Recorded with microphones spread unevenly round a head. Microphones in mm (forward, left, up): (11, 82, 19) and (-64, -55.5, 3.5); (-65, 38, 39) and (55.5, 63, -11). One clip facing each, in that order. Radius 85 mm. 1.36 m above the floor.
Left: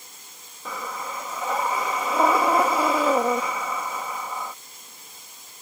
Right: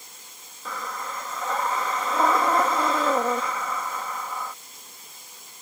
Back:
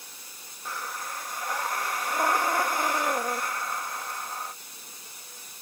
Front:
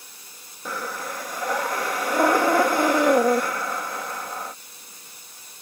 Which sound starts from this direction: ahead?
Breathing, at 0.7 s.